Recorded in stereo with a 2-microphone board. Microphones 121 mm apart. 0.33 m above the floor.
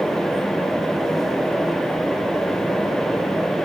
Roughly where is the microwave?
I don't hear a microwave.